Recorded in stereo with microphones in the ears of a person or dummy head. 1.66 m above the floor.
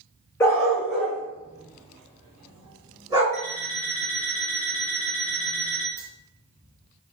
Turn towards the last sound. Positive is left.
turn(degrees=10)  # may be behind; listen again after turning